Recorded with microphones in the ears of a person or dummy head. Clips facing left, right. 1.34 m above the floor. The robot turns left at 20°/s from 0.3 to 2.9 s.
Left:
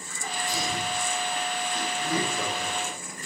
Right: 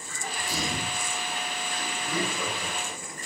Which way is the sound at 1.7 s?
40° left (ahead or behind).